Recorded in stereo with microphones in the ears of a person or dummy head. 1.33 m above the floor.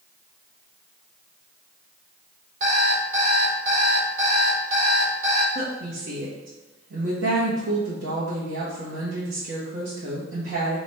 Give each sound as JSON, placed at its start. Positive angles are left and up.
{"t": 2.6, "sound": "an alarm clock", "side_deg": -50, "distance_m": 1.5}
{"t": 5.5, "sound": "a woman speaking", "side_deg": -75, "distance_m": 1.4}